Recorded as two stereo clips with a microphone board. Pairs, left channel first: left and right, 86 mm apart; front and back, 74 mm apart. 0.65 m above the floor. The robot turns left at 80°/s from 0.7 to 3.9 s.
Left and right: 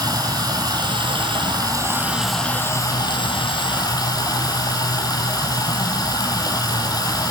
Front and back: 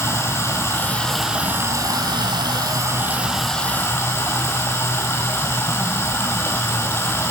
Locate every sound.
0.0 s running water: 50° right, 1.9 m; by 7.3 s 50° left, 1.9 m